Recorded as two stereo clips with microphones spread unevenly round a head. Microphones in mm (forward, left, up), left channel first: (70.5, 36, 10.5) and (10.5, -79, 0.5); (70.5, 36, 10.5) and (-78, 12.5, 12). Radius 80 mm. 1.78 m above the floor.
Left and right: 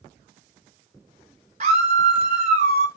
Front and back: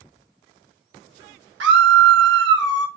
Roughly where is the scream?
Behind.